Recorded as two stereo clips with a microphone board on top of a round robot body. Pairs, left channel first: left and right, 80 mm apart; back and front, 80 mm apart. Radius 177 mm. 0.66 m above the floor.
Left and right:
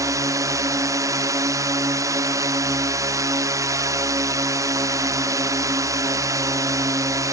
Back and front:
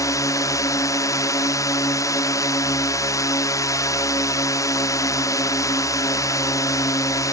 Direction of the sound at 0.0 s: 135° right.